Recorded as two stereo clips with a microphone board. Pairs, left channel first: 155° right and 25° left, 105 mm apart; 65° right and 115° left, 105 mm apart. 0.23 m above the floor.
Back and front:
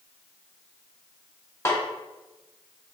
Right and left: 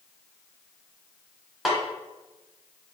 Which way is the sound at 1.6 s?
160° right.